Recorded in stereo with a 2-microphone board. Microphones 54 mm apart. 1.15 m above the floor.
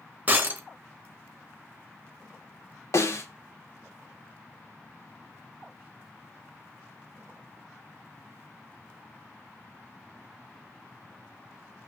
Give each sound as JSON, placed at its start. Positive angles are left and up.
{"t": 0.3, "sound": "breaking glass", "side_deg": -30, "distance_m": 1.6}
{"t": 2.9, "sound": "a snare drum", "side_deg": 60, "distance_m": 2.5}